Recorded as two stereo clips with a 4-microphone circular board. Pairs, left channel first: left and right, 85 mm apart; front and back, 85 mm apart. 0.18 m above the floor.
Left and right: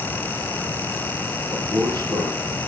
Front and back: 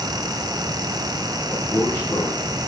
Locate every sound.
1.5 s a man speaking: 65° right, 4 m